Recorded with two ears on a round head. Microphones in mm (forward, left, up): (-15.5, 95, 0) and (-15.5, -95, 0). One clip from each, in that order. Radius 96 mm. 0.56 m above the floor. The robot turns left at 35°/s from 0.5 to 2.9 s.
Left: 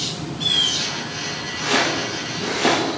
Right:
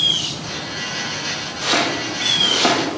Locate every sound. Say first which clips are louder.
1.6 s chopping: right 1 dB; 90° right, 6 m; by 2.8 s 45° right (ahead or behind), 6 m